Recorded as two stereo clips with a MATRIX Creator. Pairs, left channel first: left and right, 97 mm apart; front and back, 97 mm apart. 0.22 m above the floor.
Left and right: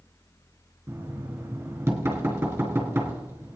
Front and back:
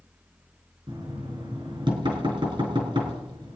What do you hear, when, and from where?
0.9 s knocking: 155° right, 3 m